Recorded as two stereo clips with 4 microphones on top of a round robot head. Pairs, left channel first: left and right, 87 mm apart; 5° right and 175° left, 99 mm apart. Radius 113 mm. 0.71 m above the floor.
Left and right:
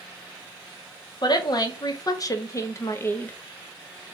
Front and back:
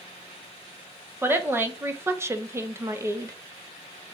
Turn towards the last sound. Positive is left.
turn(degrees=145)